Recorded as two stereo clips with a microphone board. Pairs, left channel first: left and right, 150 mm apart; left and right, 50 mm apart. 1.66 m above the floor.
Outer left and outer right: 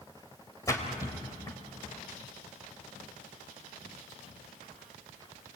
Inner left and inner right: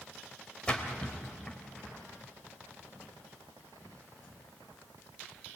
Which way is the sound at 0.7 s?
20° left (ahead or behind).